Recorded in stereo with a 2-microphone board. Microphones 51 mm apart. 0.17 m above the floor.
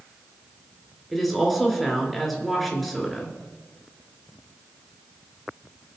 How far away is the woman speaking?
About 3 m.